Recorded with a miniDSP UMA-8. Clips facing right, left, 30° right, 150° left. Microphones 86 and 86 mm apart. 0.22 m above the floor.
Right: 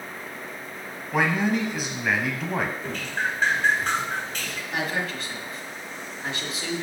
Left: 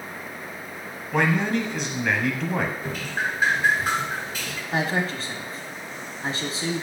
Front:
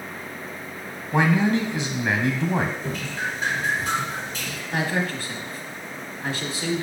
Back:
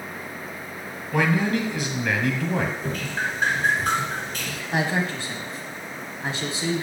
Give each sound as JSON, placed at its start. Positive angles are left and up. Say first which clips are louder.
{"t": 1.1, "sound": "a man speaking", "louder": "left 1 dB, front 2 dB", "azimuth_deg": -10, "distance_m": 1.2}
{"t": 2.8, "sound": "dripping", "louder": "even, back 1 dB", "azimuth_deg": 170, "distance_m": 1.5}
{"t": 4.7, "sound": "a man speaking", "louder": "left 4 dB, back 1 dB", "azimuth_deg": 100, "distance_m": 1.2}